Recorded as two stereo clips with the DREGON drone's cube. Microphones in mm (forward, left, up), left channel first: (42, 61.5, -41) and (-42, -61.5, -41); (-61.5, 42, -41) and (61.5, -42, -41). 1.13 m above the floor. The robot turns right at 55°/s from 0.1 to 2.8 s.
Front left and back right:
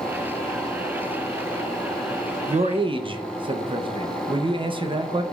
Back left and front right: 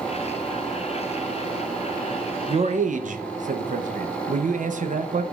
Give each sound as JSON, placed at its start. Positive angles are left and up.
{"t": 2.5, "sound": "a man speaking", "azimuth_deg": -85, "distance_m": 0.6}